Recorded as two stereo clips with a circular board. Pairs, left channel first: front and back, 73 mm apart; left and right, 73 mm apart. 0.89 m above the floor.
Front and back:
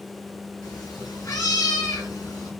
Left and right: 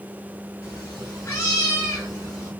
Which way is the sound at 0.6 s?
35° left.